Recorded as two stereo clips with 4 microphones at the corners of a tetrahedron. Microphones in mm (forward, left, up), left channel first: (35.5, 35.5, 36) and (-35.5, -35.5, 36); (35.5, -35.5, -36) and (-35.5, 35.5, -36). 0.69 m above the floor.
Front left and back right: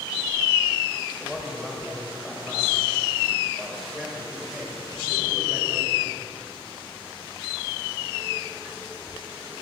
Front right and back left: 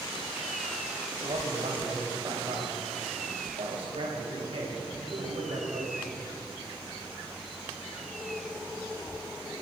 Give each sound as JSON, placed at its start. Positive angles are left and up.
{"t": 1.1, "sound": "a man speaking", "azimuth_deg": 135, "distance_m": 3.0}